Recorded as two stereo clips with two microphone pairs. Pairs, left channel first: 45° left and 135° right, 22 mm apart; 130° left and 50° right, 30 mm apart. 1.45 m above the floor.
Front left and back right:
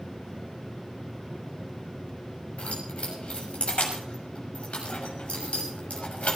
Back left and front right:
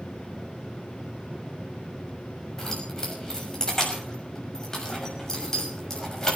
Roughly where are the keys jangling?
Ahead left.